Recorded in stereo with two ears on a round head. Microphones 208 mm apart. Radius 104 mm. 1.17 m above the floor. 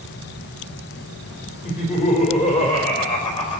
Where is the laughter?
30° left (ahead or behind), 4.5 m; by 3.6 s 25° left (ahead or behind), 6 m.